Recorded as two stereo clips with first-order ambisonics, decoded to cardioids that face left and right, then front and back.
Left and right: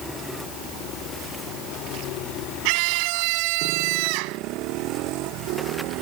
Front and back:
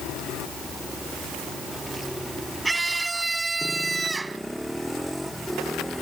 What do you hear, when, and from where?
2.6 s a scream: 95° right; by 4.4 s 100° right